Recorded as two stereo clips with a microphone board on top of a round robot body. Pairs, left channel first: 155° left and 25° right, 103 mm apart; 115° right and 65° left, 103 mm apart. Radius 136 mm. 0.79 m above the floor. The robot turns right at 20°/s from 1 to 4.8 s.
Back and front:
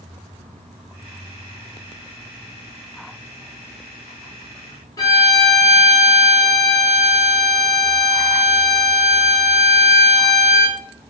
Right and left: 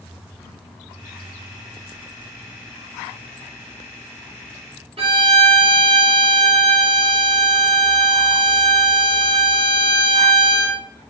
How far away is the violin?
About 1.0 m.